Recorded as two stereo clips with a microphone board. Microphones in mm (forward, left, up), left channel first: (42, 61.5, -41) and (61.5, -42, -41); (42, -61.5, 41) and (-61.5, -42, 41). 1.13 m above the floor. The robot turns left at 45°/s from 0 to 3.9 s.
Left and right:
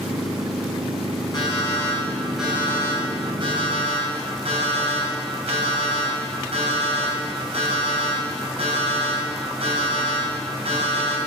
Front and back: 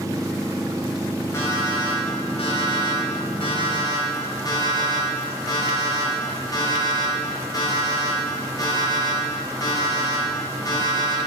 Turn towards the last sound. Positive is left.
turn(degrees=-60)